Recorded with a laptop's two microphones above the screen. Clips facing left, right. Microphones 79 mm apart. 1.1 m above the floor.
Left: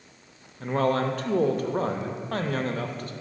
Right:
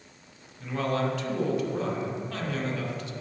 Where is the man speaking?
45° left (ahead or behind), 0.5 m.